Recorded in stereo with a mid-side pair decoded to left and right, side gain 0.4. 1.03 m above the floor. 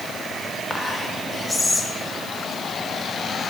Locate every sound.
0.7 s whispering: 25° left, 1.5 m